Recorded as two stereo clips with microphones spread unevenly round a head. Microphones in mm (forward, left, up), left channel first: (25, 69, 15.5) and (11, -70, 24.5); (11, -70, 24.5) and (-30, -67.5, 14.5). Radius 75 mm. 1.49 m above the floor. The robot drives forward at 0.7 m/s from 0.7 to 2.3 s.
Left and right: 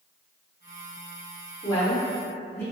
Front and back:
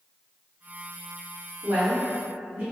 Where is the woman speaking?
150° left, 0.9 m; by 2.6 s 160° left, 1.4 m.